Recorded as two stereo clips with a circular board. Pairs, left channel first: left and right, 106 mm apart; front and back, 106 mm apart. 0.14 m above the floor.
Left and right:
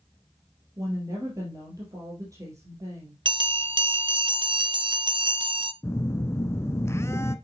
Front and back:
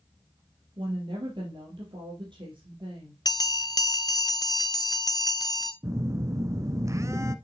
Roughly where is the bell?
Ahead right.